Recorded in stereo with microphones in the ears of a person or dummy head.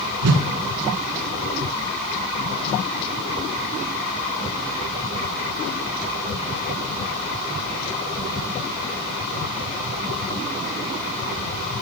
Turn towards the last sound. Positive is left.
turn(degrees=-80)